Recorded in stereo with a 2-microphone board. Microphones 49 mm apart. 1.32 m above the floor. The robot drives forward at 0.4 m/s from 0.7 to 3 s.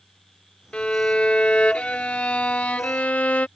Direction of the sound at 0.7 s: 25° left (ahead or behind).